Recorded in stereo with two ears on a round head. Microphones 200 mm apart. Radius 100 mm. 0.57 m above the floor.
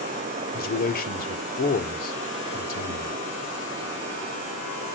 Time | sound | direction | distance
0.5 | a man speaking | 40° left (ahead or behind) | 1.6 m